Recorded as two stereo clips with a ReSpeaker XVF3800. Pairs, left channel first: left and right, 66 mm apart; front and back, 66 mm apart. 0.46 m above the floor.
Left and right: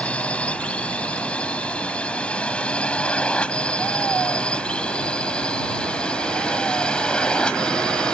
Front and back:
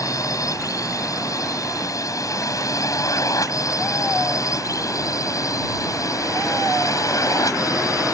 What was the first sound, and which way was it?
A drone, 20° left.